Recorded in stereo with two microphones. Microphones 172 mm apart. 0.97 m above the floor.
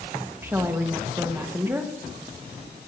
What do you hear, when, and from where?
0.4 s a woman speaking: 15° right (ahead or behind), 1.4 m